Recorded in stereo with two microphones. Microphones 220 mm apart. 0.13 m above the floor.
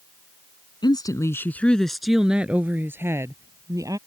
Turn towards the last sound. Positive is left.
turn(degrees=-15)  # may be behind; listen again after turning